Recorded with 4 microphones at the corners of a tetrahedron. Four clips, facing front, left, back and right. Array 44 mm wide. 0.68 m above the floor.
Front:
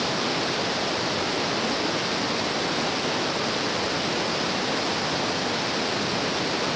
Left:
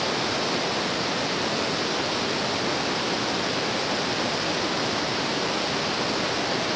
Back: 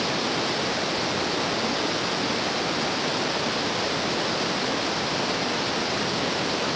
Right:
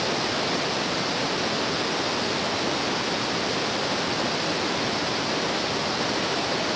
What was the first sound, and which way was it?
Only background noise.